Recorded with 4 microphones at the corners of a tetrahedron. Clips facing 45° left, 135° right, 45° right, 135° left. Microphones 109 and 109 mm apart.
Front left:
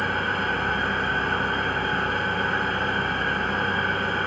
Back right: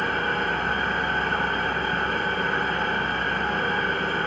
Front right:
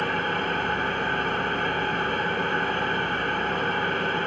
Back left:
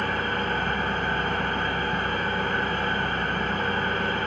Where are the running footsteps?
I don't hear running footsteps.